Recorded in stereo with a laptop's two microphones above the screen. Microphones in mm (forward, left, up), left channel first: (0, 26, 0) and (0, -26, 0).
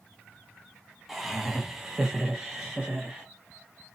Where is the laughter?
5° right (ahead or behind), 0.8 m; by 3.3 s 10° right (ahead or behind), 0.9 m.